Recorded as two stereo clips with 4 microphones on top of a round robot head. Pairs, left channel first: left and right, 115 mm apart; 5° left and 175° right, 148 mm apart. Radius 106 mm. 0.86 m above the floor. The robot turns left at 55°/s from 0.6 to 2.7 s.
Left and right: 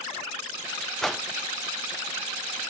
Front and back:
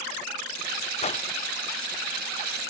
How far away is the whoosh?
About 1.0 m.